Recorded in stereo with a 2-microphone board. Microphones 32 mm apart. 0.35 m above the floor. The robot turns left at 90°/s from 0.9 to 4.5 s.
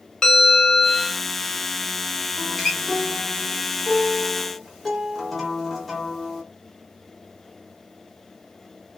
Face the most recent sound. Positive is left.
turn(degrees=0)  # may be behind; listen again after turning